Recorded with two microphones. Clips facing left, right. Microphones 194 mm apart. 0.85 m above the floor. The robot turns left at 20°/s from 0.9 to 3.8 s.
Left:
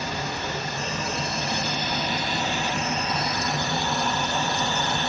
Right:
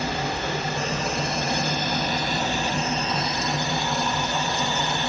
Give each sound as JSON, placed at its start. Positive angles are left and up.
{"t": 0.0, "sound": "running water", "azimuth_deg": -105, "distance_m": 0.9}